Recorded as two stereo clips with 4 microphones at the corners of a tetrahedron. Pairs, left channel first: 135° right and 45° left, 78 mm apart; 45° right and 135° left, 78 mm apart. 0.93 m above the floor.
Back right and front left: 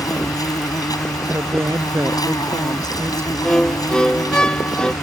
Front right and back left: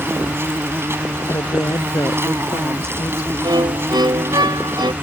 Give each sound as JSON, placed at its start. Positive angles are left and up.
{"t": 0.0, "sound": "an insect", "azimuth_deg": -170}
{"t": 1.3, "sound": "a woman speaking", "azimuth_deg": -10}
{"t": 3.4, "sound": "a violin", "azimuth_deg": 145}